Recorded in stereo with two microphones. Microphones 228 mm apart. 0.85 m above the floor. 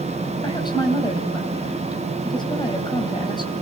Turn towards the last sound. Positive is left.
turn(degrees=20)  # may be behind; listen again after turning